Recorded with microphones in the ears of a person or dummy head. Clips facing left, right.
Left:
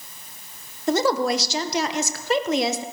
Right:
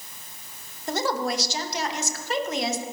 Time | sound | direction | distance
0.9 | a woman speaking | 55° left (ahead or behind) | 1.1 m